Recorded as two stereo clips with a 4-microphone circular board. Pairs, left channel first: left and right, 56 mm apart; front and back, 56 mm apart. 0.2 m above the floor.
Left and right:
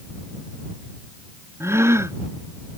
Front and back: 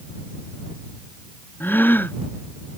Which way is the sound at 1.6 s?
55° right.